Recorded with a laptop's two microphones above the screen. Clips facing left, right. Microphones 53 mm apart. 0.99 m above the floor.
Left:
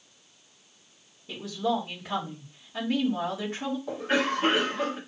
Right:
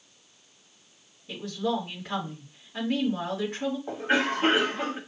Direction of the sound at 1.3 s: 5° left (ahead or behind).